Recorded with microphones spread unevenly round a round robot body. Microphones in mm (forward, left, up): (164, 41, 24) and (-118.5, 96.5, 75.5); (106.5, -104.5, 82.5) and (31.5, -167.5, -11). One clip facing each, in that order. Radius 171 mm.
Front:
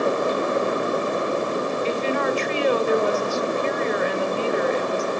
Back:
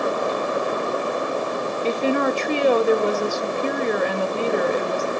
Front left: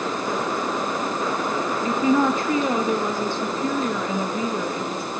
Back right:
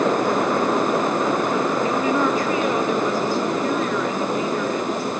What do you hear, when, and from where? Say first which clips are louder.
1.8 s a woman speaking: back 6 dB, even; 155° left, 1.2 m